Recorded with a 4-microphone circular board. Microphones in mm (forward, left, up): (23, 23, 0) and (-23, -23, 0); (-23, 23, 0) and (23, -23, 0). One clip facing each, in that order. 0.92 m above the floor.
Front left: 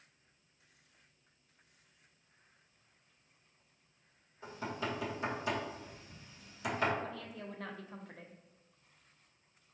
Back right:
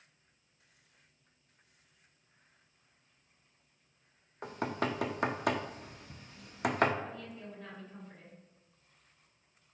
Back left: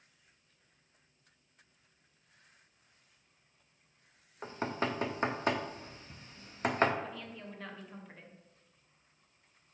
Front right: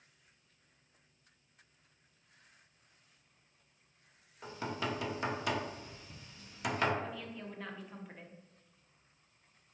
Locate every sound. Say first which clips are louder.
4.4 s knocking: back right 5 dB, back left 3 dB; 170° right, 0.5 m
7.0 s a woman speaking: even, front right 1 dB; 40° left, 0.8 m